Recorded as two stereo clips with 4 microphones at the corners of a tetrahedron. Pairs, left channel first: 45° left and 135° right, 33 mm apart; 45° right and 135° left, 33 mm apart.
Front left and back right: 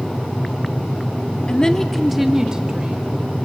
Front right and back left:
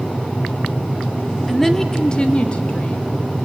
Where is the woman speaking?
35° left, 1.2 m; by 3.2 s 85° right, 2 m.